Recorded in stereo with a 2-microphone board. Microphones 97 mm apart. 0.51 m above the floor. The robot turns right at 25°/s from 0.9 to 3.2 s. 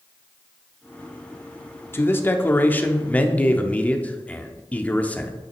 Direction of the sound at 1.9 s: 25° left (ahead or behind).